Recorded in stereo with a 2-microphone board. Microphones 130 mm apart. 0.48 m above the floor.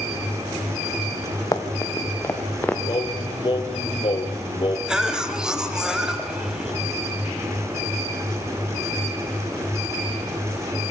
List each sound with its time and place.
1.5 s running footsteps: 30° left (ahead or behind), 2.5 m; by 2.8 s 15° left (ahead or behind), 2.5 m
2.9 s singing: 40° left (ahead or behind), 2 m
4.9 s a cough: 5° right (ahead or behind), 2.5 m